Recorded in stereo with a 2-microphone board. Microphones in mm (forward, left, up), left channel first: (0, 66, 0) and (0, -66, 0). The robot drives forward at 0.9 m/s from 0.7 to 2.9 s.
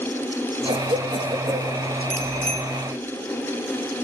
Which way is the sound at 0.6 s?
45° right (ahead or behind).